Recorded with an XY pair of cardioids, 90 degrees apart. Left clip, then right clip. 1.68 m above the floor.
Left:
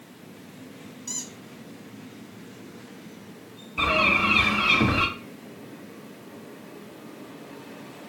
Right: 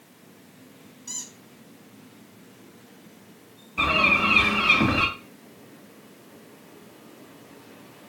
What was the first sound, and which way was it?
A squeak, 30° left.